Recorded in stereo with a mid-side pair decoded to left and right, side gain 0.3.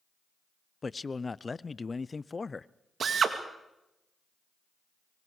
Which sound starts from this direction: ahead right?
A drill, at 3.0 s.